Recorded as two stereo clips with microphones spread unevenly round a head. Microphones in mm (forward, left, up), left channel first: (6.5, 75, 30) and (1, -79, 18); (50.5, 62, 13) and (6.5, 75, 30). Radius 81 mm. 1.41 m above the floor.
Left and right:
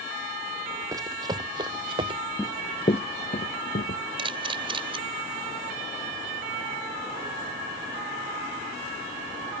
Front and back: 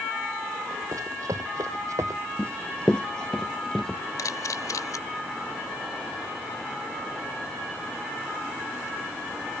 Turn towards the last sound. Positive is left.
turn(degrees=-30)